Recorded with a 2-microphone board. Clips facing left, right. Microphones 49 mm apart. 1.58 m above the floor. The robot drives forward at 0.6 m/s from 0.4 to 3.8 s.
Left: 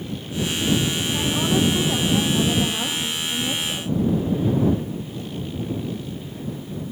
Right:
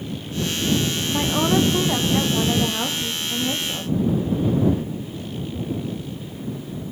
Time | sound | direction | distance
1.1 | a woman speaking | 30° right (ahead or behind) | 1.3 m